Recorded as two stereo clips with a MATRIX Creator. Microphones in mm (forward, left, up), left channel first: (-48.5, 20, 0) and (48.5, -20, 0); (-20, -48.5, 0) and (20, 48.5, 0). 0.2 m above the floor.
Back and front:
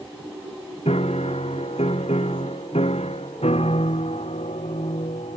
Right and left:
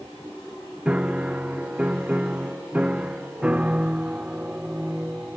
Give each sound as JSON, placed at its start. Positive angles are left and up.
{"t": 0.8, "sound": "a piano", "azimuth_deg": 145}